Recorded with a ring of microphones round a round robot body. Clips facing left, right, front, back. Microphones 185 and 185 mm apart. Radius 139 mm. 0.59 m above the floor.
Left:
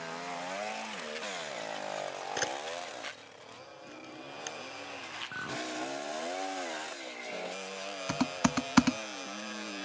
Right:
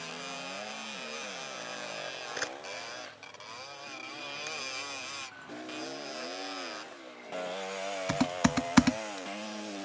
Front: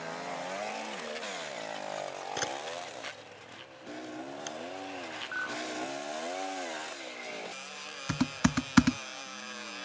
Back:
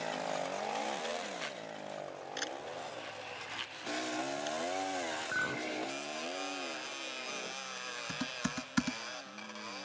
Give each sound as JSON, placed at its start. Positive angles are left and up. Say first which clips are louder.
{"t": 2.4, "sound": "a camera shutter", "louder": "left 5 dB, front 4 dB", "azimuth_deg": 30}
{"t": 5.3, "sound": "a clink", "louder": "left 4 dB, even", "azimuth_deg": 125}
{"t": 8.1, "sound": "typing on a keyboard", "louder": "right 2 dB, front 11 dB", "azimuth_deg": -5}